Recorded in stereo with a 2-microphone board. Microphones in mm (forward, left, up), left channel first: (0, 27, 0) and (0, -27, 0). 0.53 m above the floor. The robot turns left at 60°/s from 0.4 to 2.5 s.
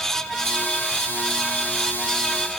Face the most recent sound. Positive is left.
No sound to turn to.